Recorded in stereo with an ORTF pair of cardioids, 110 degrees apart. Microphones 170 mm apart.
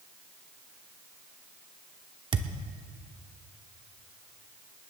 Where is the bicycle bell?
No bicycle bell in this recording.